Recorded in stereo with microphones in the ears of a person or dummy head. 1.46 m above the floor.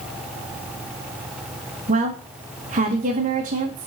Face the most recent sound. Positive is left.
turn(degrees=-35)  # may be behind; listen again after turning